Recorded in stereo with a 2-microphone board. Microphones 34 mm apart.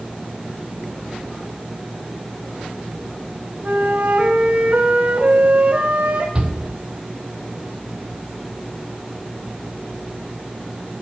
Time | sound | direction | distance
3.6 | a flute | 45° right (ahead or behind) | 1.6 m
6.3 | a shout | 30° right (ahead or behind) | 3 m